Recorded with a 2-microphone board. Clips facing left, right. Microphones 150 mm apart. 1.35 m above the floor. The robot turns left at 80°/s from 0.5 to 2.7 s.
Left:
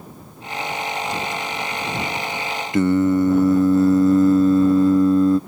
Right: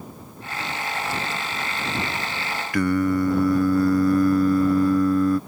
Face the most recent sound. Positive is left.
turn(degrees=25)  # may be behind; listen again after turning